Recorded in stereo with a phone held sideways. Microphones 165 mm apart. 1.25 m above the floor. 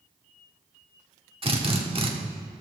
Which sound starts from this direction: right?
A drill, at 1.4 s.